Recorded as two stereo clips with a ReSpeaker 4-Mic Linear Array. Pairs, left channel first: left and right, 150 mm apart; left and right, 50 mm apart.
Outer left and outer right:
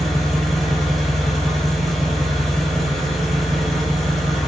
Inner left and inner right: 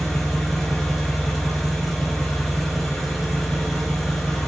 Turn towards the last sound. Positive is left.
turn(degrees=0)  # may be behind; listen again after turning